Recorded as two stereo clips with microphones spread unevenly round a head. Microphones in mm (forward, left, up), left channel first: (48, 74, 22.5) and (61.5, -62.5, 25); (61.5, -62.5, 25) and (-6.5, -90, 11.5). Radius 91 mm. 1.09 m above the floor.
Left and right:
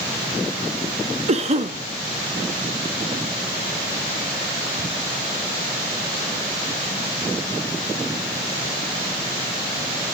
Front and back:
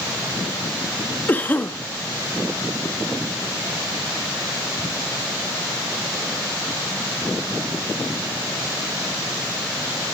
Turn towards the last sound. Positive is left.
turn(degrees=-45)